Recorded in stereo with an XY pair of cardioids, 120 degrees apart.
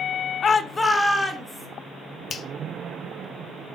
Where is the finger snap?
40° left, 0.9 m.